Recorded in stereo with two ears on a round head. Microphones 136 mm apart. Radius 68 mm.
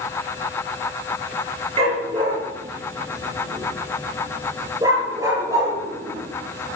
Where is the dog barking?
35° right (ahead or behind), 5 m; by 6.8 s 20° right (ahead or behind), 7 m.